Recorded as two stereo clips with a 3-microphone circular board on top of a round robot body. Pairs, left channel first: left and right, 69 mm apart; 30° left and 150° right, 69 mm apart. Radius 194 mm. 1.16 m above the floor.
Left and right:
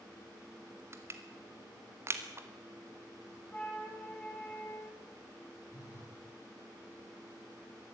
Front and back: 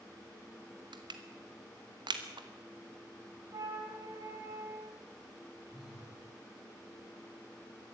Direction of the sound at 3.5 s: 165° left.